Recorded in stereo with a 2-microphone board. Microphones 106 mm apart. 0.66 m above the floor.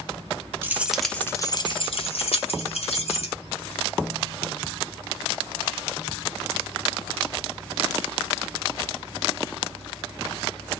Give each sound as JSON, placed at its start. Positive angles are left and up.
{"t": 0.6, "sound": "keys jangling", "side_deg": -20, "distance_m": 0.7}